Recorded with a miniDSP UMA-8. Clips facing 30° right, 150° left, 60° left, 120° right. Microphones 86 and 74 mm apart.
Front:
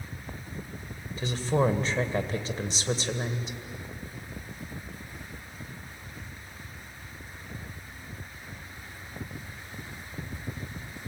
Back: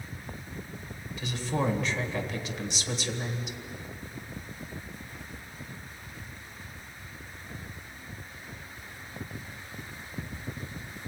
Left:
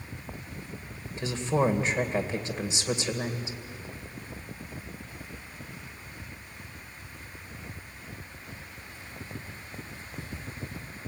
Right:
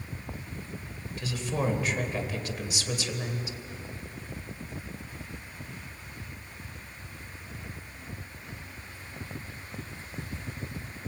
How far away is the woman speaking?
About 1.9 m.